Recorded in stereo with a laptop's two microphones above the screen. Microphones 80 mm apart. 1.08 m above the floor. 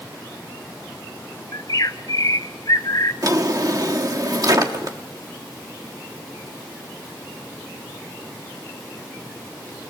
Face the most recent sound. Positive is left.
turn(degrees=-50)  # may be behind; listen again after turning